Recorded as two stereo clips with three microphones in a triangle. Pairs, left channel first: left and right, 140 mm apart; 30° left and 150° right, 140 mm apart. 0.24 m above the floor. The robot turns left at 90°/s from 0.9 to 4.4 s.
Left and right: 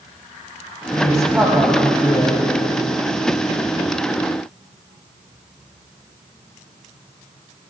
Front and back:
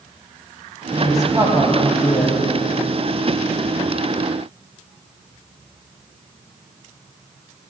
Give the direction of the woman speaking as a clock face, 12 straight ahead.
3 o'clock.